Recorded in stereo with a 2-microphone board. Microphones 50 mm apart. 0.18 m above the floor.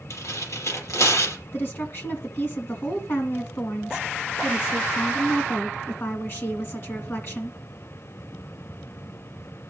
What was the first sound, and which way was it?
Tearing paper, 75° left (ahead or behind).